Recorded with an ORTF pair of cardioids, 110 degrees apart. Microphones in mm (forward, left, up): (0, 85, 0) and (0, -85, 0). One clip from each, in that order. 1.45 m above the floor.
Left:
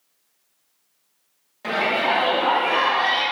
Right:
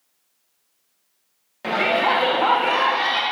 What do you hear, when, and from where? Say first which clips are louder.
1.6 s a shout: right 2 dB; 25° right, 0.9 m; by 3.2 s 70° right, 3 m